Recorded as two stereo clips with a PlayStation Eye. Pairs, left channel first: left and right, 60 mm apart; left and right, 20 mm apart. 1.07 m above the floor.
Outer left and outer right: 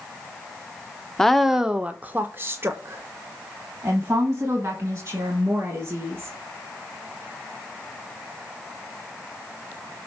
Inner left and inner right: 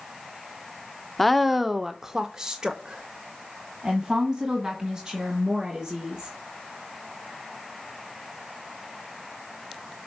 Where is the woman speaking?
5° left (ahead or behind), 0.6 m; by 6.3 s 45° right (ahead or behind), 2.5 m.